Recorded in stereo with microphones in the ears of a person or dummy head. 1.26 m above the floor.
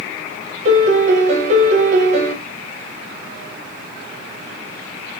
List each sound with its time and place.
0.7 s a piano: 45° right (ahead or behind), 1.0 m